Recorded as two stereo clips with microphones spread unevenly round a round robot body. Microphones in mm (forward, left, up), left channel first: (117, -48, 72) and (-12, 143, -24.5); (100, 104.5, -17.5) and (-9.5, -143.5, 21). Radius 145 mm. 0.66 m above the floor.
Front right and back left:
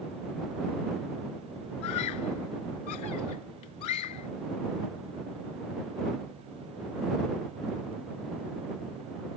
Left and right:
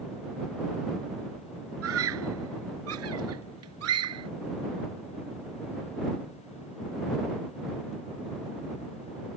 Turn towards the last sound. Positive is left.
turn(degrees=-85)